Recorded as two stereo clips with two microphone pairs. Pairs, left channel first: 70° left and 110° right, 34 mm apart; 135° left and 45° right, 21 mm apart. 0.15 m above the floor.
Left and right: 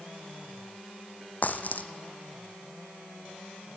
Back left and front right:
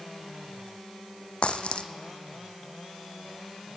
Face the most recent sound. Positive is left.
turn(degrees=105)